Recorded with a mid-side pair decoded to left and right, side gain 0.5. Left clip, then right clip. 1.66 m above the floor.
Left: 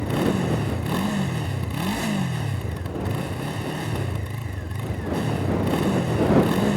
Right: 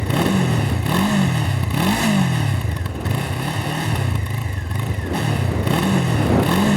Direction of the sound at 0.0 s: 45° right.